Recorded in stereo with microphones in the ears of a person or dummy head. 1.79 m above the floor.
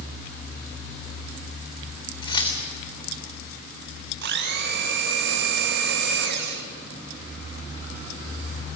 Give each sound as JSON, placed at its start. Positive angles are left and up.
{"t": 2.2, "sound": "keys jangling", "side_deg": 30, "distance_m": 4.0}
{"t": 4.2, "sound": "a blender", "side_deg": -60, "distance_m": 1.5}